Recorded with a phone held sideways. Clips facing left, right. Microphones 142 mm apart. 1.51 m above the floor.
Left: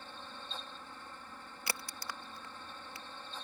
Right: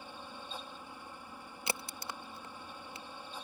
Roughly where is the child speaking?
I don't hear a child speaking.